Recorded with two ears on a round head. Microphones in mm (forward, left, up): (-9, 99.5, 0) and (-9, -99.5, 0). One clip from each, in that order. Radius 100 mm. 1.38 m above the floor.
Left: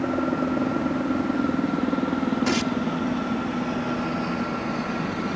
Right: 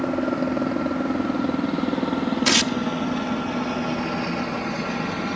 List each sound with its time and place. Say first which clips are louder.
0.0 s a helicopter: right 1 dB; 40° right (ahead or behind); by 5.3 s 30° right (ahead or behind)
2.5 s tearing paper: right 10 dB; 65° right (ahead or behind)